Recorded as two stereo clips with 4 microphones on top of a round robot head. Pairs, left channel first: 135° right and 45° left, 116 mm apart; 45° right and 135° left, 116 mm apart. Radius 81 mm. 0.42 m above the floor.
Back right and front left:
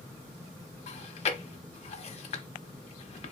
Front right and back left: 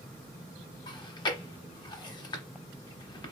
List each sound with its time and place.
0.9 s chewing: 100° right, 0.8 m